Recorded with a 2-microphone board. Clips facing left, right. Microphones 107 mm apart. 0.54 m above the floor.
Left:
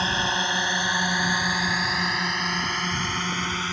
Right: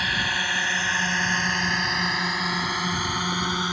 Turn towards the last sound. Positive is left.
turn(degrees=-20)  # may be behind; listen again after turning